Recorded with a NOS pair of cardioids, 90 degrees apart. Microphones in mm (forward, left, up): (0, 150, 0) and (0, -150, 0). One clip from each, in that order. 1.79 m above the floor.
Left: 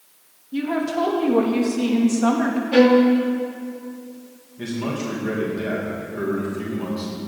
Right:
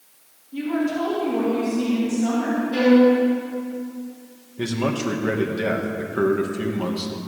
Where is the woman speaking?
50° left, 3.5 m; by 2.6 s 70° left, 3.5 m.